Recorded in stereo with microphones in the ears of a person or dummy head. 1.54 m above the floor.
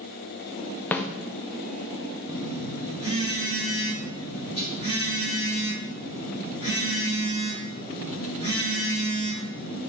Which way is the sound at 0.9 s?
10° left (ahead or behind).